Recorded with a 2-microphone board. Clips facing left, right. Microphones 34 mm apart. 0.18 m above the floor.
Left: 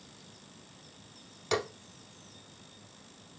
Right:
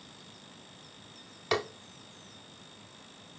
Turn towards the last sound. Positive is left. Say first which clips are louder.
# right 1 dB
turn(degrees=-25)  # may be behind; listen again after turning